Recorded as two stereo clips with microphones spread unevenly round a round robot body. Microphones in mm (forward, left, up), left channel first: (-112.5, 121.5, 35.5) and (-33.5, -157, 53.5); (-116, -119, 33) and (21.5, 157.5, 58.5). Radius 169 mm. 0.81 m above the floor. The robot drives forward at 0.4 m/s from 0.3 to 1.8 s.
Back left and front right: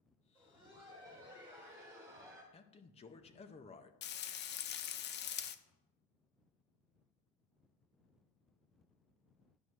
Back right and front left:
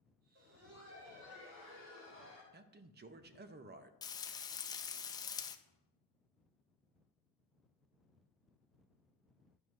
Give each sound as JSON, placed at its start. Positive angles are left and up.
{"t": 0.3, "sound": "laughter", "azimuth_deg": 10, "distance_m": 3.0}
{"t": 2.5, "sound": "a man speaking", "azimuth_deg": 80, "distance_m": 0.6}
{"t": 4.0, "sound": "frying", "azimuth_deg": 165, "distance_m": 0.6}
{"t": 5.7, "sound": "a cupboard door", "azimuth_deg": 40, "distance_m": 3.0}